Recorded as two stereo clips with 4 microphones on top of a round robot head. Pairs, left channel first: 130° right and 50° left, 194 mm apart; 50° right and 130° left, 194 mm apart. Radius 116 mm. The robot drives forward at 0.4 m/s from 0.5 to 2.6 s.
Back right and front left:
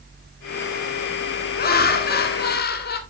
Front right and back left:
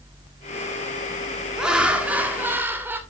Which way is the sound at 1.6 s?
145° right.